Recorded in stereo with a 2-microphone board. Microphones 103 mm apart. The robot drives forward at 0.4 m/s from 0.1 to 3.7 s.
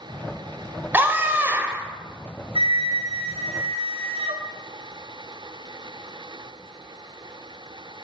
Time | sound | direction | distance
0.9 | a scream | 20° right (ahead or behind) | 4 m
2.5 | a flute | 60° right (ahead or behind) | 4 m